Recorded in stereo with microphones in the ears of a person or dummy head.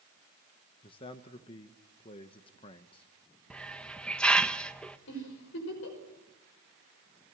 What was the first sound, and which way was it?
A man speaking, 30° left (ahead or behind).